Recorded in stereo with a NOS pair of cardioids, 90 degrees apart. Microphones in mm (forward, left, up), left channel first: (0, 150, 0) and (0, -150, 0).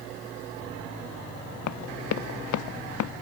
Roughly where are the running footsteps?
Ahead left.